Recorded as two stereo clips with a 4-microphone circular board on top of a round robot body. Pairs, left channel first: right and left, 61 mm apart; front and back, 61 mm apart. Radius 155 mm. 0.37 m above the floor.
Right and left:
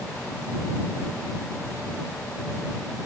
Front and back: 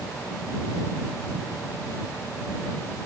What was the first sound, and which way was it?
Only background noise.